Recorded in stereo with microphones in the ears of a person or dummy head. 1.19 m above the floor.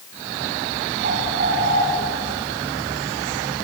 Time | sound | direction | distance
1.0 | a bird | 50° right (ahead or behind) | 7.5 m